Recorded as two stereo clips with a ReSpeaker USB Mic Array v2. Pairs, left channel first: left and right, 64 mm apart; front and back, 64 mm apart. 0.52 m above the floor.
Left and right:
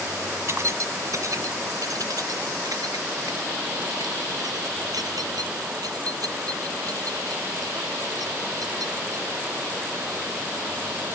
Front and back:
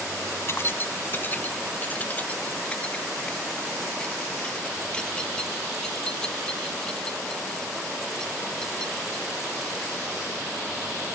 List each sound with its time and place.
0.5 s keys jangling: 45° right; by 9.3 s 80° right